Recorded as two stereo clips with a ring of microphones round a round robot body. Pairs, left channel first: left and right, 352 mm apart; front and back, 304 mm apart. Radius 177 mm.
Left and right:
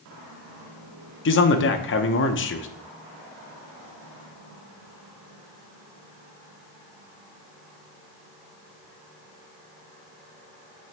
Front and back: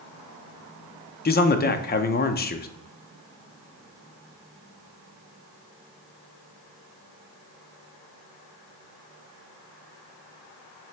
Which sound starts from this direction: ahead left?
A man speaking, at 1.2 s.